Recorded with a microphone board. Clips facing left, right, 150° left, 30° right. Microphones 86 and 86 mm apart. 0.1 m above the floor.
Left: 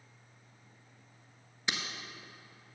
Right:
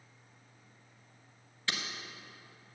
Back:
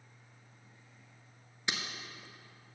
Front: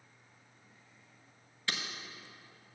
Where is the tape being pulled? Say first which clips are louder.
Left 1 dB, back 1 dB; 125° left, 1.0 m.